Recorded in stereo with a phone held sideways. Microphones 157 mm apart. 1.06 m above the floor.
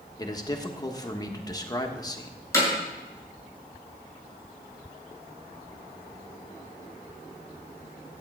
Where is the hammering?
20° left (ahead or behind), 6.5 m.